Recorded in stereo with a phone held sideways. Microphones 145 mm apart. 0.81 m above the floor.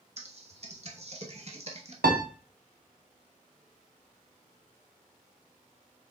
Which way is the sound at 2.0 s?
85° right.